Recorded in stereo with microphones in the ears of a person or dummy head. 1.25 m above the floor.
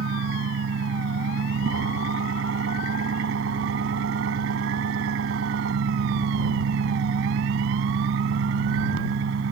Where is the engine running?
65° right (ahead or behind).